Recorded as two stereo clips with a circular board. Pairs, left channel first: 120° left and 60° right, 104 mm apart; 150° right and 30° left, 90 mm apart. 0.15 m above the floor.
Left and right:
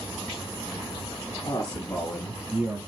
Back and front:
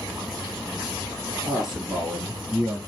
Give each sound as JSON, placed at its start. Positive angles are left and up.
{"t": 1.4, "sound": "a man speaking", "azimuth_deg": 115, "distance_m": 1.6}